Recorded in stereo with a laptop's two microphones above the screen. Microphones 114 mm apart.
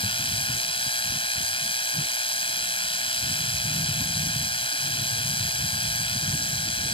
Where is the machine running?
55° left (ahead or behind).